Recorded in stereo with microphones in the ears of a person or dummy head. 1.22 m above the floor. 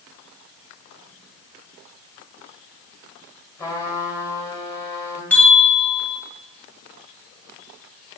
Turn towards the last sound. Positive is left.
turn(degrees=5)  # may be behind; listen again after turning